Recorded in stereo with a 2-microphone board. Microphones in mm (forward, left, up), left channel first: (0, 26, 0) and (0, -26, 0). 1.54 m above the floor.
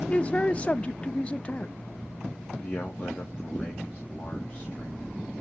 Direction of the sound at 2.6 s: 25° left (ahead or behind).